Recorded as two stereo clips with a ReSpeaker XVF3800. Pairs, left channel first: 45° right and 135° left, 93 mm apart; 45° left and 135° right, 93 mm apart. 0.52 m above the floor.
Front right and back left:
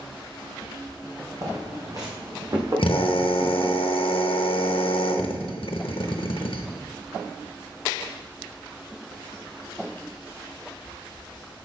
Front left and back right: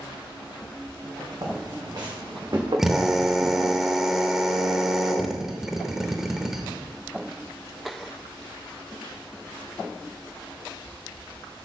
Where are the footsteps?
175° right, 1.8 m; by 3.7 s 170° right, 3.5 m.